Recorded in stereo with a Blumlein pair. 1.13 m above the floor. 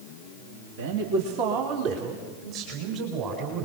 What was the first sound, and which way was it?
A man speaking, 55° right.